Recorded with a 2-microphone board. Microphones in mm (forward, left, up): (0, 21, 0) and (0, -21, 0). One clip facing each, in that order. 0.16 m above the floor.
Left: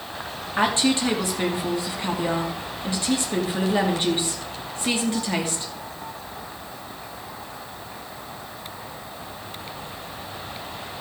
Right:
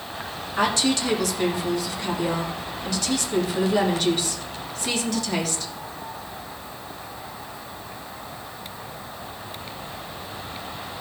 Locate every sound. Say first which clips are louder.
0.6 s a woman speaking: left 1 dB; 25° left (ahead or behind), 3 m